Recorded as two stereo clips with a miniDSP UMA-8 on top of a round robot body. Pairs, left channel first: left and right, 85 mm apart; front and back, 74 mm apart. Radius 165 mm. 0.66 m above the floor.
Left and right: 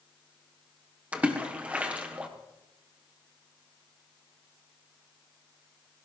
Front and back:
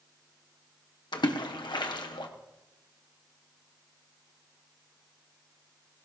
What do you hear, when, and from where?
1.1 s a splash: 15° right, 1.4 m